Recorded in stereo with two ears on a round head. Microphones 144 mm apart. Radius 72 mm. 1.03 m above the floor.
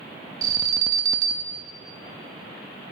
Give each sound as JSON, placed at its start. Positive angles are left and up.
{"t": 0.4, "sound": "an alarm", "side_deg": -20, "distance_m": 1.0}